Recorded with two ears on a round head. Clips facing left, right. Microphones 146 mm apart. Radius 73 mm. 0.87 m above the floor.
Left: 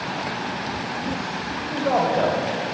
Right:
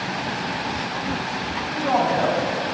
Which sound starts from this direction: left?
A man speaking, at 1.7 s.